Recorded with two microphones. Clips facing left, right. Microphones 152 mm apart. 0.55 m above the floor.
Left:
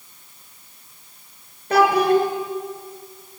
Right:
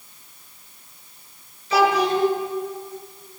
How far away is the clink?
I don't hear a clink.